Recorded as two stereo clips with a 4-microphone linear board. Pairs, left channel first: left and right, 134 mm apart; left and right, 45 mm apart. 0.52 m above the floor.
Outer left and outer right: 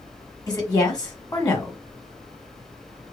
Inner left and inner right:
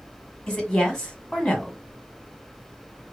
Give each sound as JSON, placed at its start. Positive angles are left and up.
{"t": 0.5, "sound": "a woman speaking", "side_deg": 30, "distance_m": 1.3}